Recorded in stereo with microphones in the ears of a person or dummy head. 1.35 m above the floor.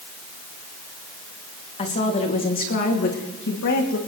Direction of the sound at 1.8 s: 30° left (ahead or behind).